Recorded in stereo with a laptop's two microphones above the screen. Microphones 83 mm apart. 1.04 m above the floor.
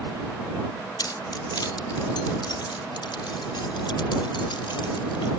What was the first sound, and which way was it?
Keys jangling, 55° left (ahead or behind).